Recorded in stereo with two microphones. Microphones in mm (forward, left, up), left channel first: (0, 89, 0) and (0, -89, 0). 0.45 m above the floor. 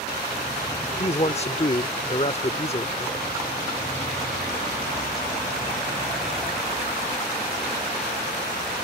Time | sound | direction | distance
1.0 | a man speaking | 35° left (ahead or behind) | ?